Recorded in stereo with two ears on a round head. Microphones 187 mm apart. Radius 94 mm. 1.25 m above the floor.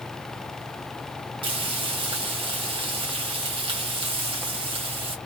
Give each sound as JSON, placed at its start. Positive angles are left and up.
{"t": 1.4, "sound": "frying", "side_deg": -25, "distance_m": 1.3}